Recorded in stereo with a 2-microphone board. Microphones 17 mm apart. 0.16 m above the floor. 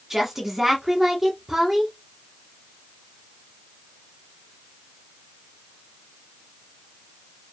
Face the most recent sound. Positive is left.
turn(degrees=-25)  # may be behind; listen again after turning